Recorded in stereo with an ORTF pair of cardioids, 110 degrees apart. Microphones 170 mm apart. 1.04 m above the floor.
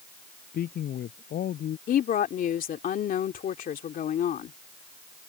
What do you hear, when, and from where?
0.5 s a man speaking: 55° left
1.9 s a woman speaking: 55° left